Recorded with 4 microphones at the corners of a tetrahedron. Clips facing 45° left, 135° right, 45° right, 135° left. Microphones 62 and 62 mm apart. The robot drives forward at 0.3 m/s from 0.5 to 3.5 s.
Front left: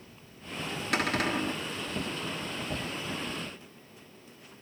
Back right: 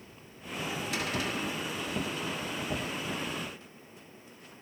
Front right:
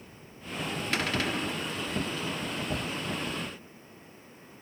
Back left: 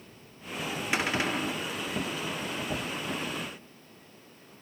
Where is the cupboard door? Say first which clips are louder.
Front left 7 dB, back left 2 dB; 60° left, 1.4 m; by 1.6 s 70° left, 1.3 m.